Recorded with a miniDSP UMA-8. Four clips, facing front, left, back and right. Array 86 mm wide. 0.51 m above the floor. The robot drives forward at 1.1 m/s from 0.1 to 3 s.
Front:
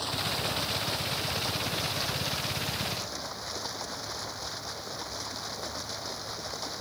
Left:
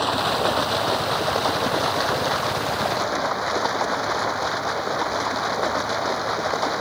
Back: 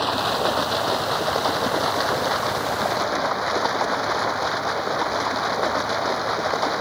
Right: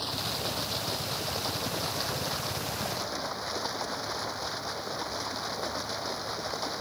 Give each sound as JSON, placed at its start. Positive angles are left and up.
{"t": 0.0, "sound": "running water", "azimuth_deg": 135}